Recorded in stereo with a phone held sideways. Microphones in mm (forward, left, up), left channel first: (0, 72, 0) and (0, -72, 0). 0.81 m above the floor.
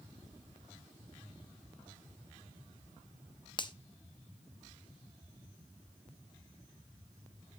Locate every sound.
3.6 s a finger snap: 30° left (ahead or behind), 0.5 m